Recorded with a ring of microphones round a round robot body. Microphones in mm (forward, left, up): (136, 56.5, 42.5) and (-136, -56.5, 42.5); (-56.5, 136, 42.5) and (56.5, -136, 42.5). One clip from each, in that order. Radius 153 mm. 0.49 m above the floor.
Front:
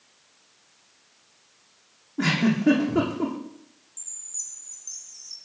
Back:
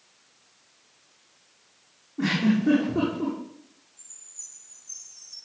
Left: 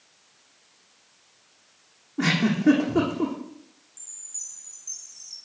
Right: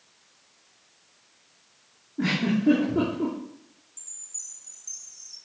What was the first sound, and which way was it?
A giggle, 75° left.